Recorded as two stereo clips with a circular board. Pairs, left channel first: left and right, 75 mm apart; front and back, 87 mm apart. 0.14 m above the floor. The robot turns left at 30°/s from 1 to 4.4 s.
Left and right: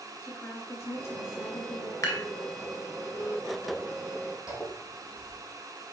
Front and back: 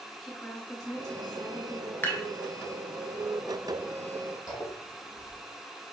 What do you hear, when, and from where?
0.2 s a woman speaking: 75° left, 1.9 m; by 1.9 s 50° left, 1.9 m
2.0 s dishes clattering: 55° left, 1.2 m; by 2.2 s 50° left, 1.2 m
4.5 s a zipper: 50° left, 2.5 m